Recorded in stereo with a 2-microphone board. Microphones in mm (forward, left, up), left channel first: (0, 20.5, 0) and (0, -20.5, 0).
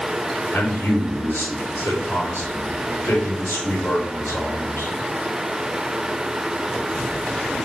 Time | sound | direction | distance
0.5 | a man speaking | 85° left | 3.5 m